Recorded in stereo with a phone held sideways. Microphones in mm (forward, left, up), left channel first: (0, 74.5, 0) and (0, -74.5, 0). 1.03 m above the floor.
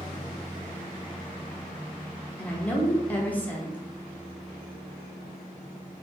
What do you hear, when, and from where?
2.4 s a woman speaking: 10° left (ahead or behind), 0.7 m